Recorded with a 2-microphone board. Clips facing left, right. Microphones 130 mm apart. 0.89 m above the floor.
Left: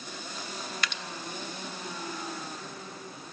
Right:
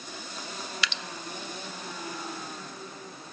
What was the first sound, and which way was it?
Dripping, 50° left (ahead or behind).